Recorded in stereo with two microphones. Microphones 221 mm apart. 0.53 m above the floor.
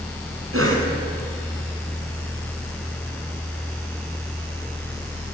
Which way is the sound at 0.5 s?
75° right (ahead or behind).